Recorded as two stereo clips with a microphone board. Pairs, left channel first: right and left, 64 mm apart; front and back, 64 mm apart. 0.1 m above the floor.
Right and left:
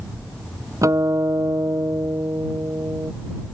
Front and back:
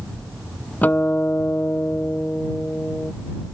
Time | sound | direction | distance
0.8 | a guitar | 60° left | ?